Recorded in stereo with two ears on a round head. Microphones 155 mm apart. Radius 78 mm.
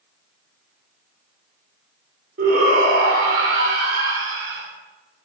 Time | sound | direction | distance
2.4 | a shout | 60° right (ahead or behind) | 2.5 m